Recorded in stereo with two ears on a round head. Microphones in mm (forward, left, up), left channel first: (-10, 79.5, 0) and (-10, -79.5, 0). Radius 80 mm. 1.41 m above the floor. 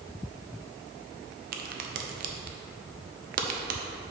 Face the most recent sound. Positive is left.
turn(degrees=-50)  # may be behind; listen again after turning